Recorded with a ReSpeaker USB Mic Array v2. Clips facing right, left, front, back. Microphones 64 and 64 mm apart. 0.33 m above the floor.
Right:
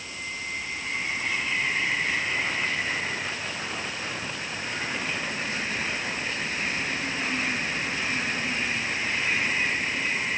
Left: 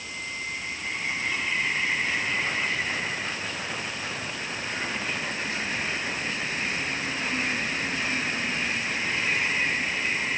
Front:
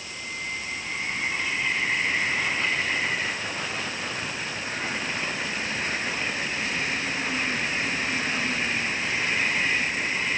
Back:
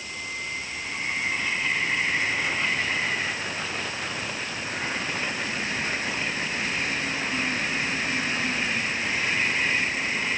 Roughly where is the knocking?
I don't hear knocking.